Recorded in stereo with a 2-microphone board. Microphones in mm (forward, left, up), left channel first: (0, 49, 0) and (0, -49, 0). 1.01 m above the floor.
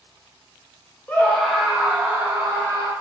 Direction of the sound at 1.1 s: 20° left (ahead or behind).